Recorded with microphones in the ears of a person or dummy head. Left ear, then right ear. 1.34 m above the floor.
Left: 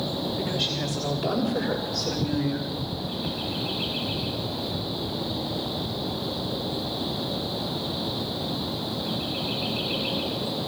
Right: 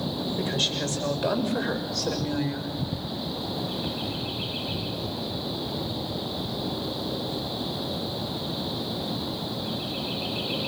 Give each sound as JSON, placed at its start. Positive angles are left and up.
{"t": 0.4, "sound": "a woman speaking", "side_deg": -40, "distance_m": 7.5}